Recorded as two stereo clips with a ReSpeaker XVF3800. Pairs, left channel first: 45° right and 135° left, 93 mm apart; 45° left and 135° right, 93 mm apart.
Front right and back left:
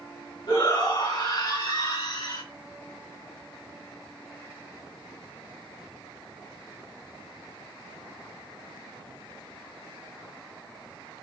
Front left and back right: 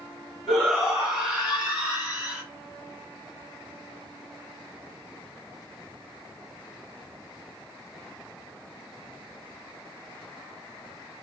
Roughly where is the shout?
Ahead right.